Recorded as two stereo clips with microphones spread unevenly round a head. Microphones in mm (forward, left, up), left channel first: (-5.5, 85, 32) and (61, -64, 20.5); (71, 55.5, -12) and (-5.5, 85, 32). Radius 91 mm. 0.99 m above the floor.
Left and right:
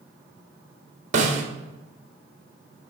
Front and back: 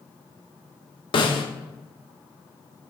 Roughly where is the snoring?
No snoring in this recording.